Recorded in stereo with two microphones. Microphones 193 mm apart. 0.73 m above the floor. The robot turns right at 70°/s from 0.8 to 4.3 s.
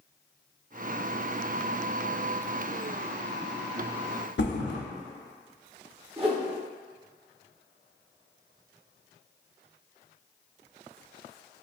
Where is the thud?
75° left (ahead or behind), 0.7 m.